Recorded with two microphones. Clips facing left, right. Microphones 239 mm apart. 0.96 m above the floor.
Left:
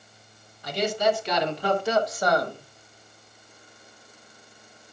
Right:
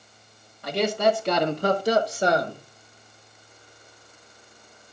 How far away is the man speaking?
About 1.4 m.